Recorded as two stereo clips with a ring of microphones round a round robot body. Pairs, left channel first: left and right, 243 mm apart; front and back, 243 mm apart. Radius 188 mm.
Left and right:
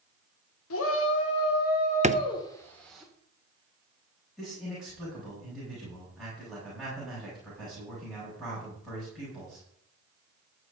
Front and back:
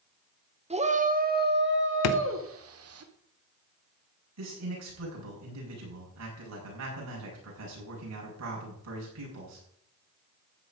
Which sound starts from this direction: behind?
A man speaking, at 4.4 s.